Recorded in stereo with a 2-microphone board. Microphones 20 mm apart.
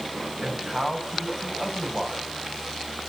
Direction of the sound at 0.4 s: 35° right (ahead or behind).